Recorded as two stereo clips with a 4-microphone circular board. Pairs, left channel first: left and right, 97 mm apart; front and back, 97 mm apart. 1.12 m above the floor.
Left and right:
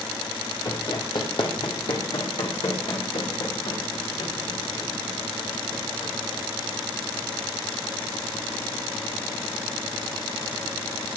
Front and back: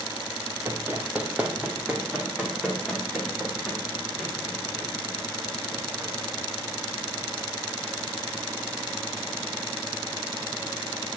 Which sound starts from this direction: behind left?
Running footsteps, at 0.7 s.